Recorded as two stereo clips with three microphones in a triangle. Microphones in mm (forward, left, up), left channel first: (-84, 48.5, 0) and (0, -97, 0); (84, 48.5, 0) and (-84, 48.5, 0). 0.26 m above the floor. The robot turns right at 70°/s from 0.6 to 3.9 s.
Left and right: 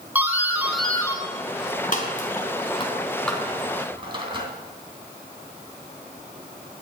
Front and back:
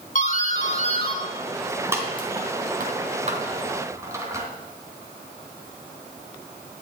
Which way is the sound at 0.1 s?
15° left.